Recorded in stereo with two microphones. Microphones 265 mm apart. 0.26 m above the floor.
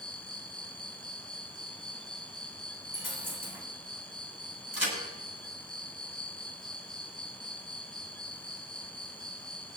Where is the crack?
70° right (ahead or behind), 7.5 m.